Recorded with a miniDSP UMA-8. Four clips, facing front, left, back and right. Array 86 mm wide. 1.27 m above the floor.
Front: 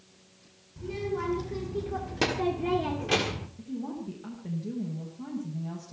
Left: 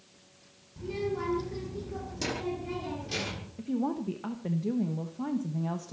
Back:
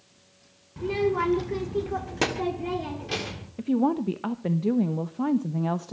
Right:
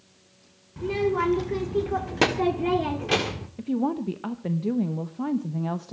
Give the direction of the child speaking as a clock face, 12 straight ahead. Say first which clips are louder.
Right 8 dB, back 8 dB; 5 o'clock.